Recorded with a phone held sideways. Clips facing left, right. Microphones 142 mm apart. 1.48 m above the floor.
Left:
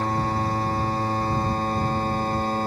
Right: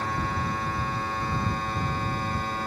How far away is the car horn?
No car horn in this recording.